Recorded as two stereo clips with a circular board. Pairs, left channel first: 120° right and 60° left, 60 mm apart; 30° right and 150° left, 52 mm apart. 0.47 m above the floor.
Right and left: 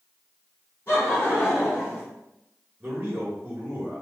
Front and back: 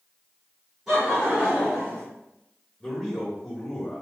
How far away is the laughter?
About 1.6 m.